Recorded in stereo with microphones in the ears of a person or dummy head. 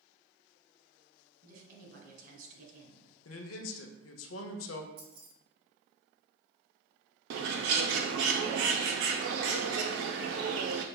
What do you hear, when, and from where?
1.4 s a woman speaking: 45° right (ahead or behind), 1.7 m
3.2 s a man speaking: 85° left, 0.6 m
5.0 s keys jangling: 60° right (ahead or behind), 1.0 m
7.3 s a bird: 70° right (ahead or behind), 0.5 m